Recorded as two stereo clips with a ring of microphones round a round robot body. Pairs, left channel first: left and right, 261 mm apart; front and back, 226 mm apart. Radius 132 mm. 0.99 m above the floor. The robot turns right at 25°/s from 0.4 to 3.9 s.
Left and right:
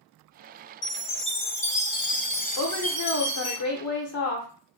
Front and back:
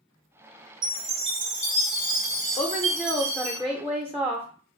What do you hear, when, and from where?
0.8 s a chime: 125° left, 1.5 m; by 3.6 s 165° right, 1.5 m
2.6 s a woman speaking: 65° left, 0.6 m; by 4.5 s 100° left, 0.6 m